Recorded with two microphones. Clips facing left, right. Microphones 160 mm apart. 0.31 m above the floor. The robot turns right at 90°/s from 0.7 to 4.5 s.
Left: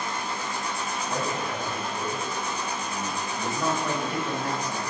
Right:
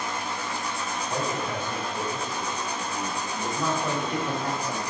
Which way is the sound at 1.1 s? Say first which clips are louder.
Right 1 dB; 160° right.